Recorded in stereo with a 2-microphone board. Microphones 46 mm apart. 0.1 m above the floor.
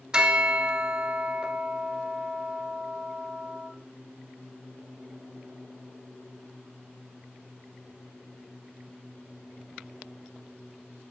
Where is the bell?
20° right (ahead or behind), 1.5 m.